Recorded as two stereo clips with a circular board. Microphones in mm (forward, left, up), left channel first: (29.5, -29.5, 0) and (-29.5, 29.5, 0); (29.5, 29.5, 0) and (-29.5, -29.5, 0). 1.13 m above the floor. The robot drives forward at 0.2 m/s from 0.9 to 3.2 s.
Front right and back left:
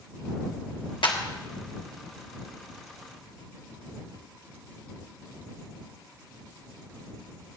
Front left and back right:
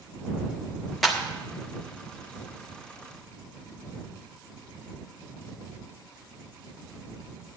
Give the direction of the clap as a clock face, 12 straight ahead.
2 o'clock.